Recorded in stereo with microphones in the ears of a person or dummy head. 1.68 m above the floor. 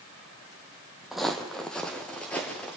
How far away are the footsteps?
About 3 m.